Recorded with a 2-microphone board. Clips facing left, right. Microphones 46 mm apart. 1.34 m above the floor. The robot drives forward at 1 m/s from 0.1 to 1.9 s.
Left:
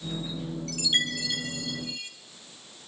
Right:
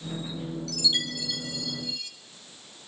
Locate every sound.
0.7 s a chime: 35° left (ahead or behind), 1.0 m